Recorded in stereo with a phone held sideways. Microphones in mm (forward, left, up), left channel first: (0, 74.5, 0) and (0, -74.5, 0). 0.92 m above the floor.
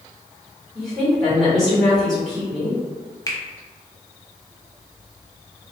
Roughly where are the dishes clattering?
I don't hear dishes clattering.